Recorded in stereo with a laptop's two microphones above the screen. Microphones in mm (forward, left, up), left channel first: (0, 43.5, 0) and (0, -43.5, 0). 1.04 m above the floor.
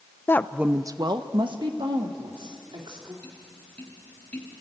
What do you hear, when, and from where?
0.3 s a woman speaking: 30° left (ahead or behind), 0.5 m; by 3.1 s 80° right, 3 m
3.2 s tapping: 10° left (ahead or behind), 4 m